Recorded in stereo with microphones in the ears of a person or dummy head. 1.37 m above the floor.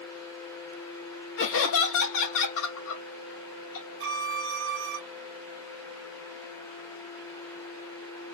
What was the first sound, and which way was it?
Laughter, 70° left (ahead or behind).